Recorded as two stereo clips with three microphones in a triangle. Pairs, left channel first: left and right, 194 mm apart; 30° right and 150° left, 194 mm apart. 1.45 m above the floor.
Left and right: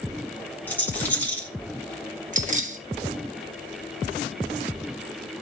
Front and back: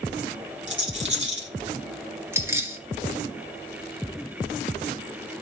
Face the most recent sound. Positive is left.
turn(degrees=-135)